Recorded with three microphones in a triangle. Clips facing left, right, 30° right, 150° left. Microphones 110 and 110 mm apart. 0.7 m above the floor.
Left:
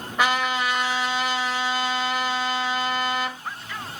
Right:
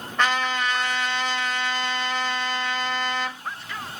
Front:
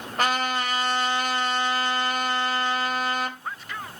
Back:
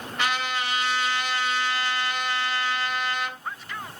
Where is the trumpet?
10° left, 3 m.